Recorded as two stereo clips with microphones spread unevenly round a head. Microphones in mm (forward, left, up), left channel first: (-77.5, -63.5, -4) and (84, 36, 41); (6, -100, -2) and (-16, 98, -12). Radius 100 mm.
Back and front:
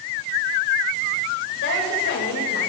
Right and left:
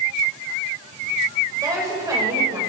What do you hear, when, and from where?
1.6 s a woman speaking: 170° left, 8 m